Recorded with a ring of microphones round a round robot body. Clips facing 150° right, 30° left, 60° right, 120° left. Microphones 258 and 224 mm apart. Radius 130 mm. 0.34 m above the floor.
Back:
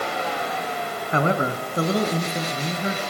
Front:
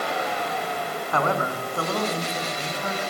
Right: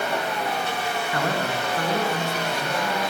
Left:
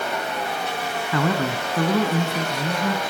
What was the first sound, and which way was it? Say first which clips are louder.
A man speaking: back 4 dB, left 5 dB; 140° left.